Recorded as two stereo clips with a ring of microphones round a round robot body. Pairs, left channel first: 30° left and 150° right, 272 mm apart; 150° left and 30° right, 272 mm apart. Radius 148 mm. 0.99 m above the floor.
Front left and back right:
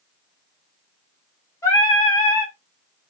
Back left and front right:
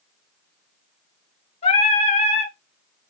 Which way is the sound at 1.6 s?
100° left.